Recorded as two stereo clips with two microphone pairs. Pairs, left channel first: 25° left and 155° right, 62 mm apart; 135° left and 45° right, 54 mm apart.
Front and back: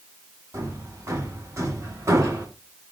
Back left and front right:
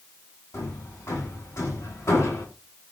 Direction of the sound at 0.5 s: 165° left.